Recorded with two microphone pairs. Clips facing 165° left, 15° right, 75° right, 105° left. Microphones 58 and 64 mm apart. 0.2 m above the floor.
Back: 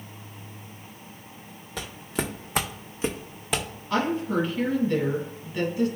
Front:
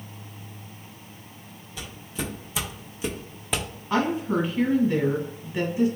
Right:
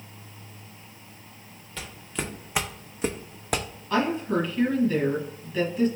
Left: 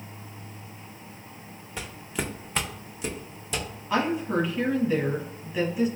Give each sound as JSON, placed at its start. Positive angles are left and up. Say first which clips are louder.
{"t": 1.8, "sound": "footsteps", "louder": "back 4 dB, left 1 dB", "azimuth_deg": 170, "distance_m": 0.9}
{"t": 3.9, "sound": "a woman speaking", "louder": "front 1 dB, right 1 dB", "azimuth_deg": 40, "distance_m": 1.1}